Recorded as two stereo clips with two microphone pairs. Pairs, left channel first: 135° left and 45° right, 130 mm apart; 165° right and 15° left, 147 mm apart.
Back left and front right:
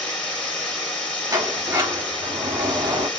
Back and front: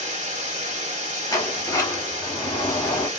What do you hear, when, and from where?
0.0 s running water: 55° left, 1.2 m
1.3 s a sliding door: 105° right, 0.8 m